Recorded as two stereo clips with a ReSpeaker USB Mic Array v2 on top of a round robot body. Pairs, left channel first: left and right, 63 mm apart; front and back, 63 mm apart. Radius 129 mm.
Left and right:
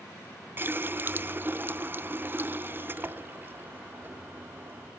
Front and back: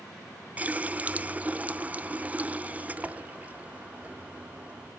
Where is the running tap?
125° right, 0.9 m.